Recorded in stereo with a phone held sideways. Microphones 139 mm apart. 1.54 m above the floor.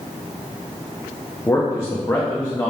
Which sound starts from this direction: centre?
A man speaking, at 1.5 s.